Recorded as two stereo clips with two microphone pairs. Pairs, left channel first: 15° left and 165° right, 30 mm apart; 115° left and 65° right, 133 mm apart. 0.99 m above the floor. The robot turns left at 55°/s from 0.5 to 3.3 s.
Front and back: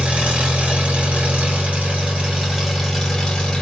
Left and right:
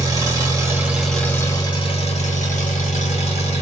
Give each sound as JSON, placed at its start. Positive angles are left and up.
{"t": 0.0, "sound": "an engine running", "azimuth_deg": -125, "distance_m": 1.6}